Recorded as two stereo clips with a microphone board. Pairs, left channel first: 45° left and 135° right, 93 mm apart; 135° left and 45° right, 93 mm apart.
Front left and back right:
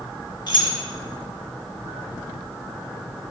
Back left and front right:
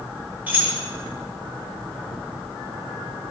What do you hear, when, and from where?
0.5 s keys jangling: 20° left, 0.7 m